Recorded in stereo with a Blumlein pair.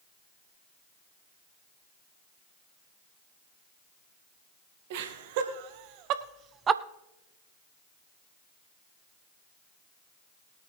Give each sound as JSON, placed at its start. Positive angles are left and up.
{"t": 4.9, "sound": "laughter", "azimuth_deg": -50, "distance_m": 1.9}